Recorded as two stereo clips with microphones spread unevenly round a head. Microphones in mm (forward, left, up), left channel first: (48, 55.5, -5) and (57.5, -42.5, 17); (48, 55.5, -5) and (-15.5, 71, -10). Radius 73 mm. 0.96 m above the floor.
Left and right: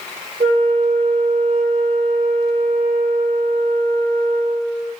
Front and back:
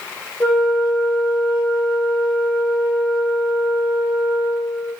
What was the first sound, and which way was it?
A flute, 75° right.